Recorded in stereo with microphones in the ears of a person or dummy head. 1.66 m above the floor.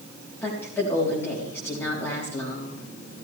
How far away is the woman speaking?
About 4 m.